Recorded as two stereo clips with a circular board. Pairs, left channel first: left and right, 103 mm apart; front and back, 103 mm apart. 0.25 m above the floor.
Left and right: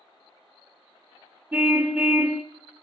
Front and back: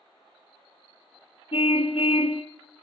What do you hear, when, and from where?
1.5 s a car horn: 20° right, 2 m